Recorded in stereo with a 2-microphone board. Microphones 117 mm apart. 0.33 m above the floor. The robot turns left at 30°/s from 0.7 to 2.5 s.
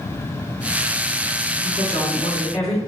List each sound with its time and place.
1.6 s a woman speaking: 70° left (ahead or behind), 3 m; by 2.8 s 60° left (ahead or behind), 3 m